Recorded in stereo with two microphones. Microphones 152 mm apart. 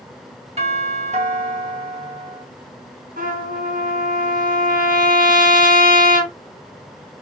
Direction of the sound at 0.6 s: 45° right (ahead or behind).